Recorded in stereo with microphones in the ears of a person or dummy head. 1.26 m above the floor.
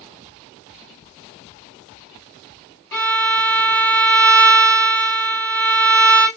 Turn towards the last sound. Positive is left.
turn(degrees=10)  # may be behind; listen again after turning